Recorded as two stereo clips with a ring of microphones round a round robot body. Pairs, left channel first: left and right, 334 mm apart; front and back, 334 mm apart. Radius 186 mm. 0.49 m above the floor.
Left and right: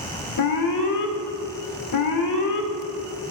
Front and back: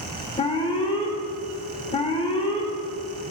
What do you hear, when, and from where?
0.4 s an alarm: 75° left, 1.6 m